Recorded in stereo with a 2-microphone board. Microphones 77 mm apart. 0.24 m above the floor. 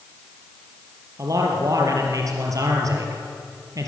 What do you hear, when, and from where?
1.2 s a man speaking: 50° right (ahead or behind), 4 m